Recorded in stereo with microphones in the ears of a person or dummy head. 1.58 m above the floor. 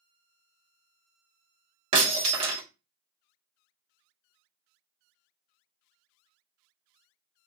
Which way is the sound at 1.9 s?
25° right (ahead or behind).